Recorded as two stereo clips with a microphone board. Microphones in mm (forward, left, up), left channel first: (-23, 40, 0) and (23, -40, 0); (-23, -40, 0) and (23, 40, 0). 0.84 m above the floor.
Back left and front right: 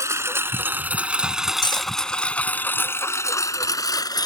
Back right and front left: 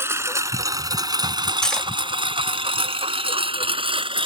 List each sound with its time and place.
0.0 s a lawn mower: straight ahead; by 4.3 s 75° left
1.6 s cutlery clinking: 155° left